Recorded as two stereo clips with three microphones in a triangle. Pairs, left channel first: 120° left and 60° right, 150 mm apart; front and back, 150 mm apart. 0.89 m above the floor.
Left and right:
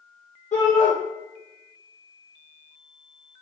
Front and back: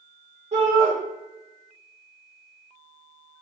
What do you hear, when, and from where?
0.5 s a shout: 150° left, 1.0 m